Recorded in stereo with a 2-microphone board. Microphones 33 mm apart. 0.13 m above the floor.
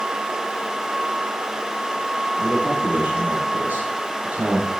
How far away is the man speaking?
About 3.5 m.